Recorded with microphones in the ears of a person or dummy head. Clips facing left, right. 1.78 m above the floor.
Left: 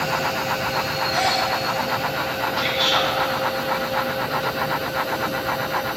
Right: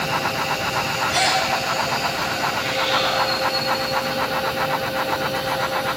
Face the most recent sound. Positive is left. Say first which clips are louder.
# left 1 dB
turn(degrees=70)  # may be behind; listen again after turning